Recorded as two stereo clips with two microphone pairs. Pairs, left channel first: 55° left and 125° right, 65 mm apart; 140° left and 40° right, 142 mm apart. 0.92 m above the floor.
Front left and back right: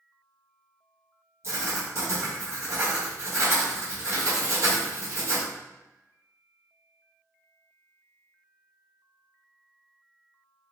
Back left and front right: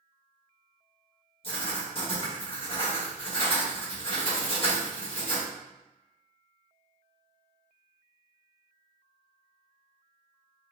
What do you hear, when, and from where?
1.4 s writing: 170° right, 1.0 m